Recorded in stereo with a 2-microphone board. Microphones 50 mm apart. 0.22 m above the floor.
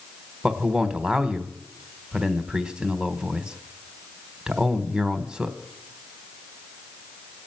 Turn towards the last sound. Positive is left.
turn(degrees=-20)  # may be behind; listen again after turning